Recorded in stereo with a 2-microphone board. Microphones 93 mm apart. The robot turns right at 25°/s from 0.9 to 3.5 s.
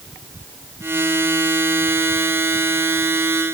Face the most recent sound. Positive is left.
No sound to turn to.